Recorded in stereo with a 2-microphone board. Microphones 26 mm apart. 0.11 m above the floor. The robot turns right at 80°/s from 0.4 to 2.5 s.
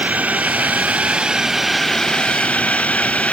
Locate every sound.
0.0 s a drone: 105° right; by 3.3 s 65° left